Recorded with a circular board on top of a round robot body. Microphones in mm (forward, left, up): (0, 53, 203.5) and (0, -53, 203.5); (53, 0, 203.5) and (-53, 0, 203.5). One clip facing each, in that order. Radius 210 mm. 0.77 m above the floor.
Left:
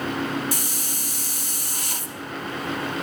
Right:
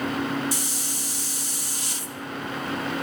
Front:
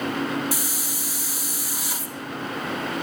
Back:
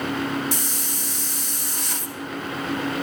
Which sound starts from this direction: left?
A hiss, at 0.5 s.